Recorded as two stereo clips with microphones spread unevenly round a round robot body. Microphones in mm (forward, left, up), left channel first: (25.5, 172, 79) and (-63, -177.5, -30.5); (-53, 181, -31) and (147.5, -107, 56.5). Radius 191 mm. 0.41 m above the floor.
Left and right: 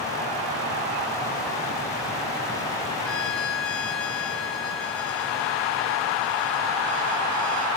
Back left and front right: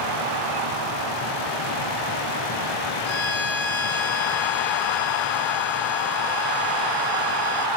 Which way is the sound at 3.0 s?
85° left.